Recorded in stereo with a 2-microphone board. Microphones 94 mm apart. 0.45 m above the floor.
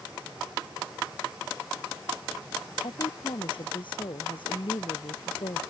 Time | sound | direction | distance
2.8 | a woman speaking | 60° left (ahead or behind) | ?